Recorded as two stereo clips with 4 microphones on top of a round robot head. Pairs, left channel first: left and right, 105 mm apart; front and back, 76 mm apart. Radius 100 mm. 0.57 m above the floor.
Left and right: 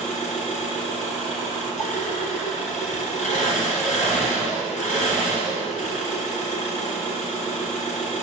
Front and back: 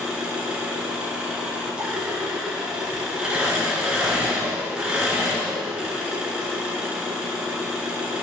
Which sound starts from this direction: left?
An engine running, at 0.0 s.